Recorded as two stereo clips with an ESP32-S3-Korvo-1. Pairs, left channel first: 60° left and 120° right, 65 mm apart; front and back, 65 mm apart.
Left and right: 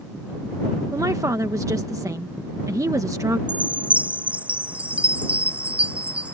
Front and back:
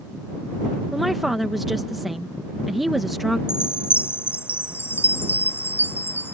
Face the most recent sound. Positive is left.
turn(degrees=-55)